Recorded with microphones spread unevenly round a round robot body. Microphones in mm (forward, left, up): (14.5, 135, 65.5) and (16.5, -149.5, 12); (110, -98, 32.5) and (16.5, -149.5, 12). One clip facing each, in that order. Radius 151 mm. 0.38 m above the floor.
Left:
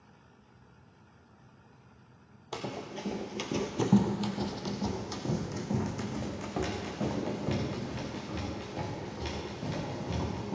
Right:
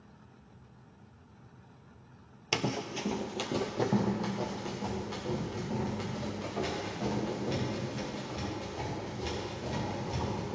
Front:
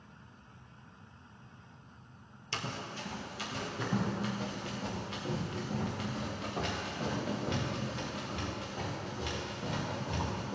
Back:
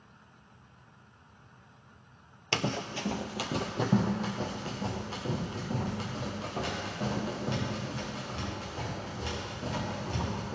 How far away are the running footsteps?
About 0.6 m.